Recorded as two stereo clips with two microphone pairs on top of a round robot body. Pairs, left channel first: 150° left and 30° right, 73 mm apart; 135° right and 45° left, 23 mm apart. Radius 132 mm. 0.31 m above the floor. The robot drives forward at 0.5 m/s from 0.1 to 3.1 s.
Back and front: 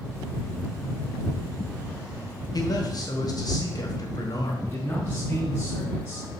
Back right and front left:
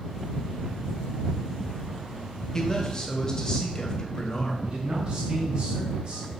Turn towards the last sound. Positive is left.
turn(degrees=85)